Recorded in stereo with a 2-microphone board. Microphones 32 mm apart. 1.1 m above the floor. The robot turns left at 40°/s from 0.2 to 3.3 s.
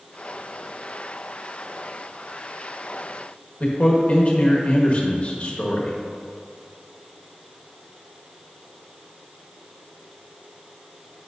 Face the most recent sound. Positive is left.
turn(degrees=40)  # may be behind; listen again after turning